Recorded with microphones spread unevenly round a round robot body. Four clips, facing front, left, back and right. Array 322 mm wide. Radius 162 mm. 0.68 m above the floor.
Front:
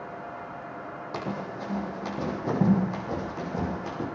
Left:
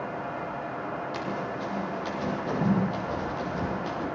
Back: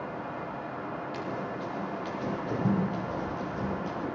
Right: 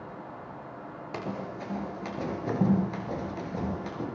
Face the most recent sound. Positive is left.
turn(degrees=-20)